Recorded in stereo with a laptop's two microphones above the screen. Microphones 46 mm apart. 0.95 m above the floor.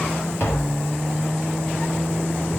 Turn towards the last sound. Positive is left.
turn(degrees=55)  # may be behind; listen again after turning